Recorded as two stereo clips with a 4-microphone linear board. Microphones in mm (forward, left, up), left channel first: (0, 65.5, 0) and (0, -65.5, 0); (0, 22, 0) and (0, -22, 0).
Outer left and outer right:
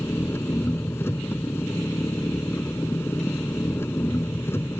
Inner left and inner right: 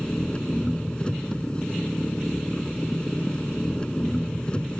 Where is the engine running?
20° left (ahead or behind).